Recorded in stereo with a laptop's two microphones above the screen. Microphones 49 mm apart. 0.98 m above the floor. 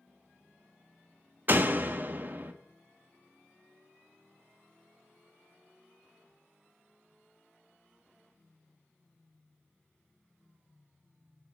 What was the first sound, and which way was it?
A door slam, 40° right (ahead or behind).